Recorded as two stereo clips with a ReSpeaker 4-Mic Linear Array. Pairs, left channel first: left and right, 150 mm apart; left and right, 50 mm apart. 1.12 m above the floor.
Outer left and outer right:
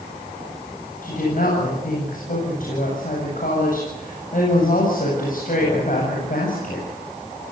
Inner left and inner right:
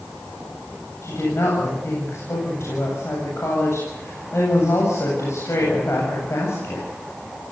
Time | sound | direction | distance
1.0 | a woman speaking | 65° left (ahead or behind) | 8 m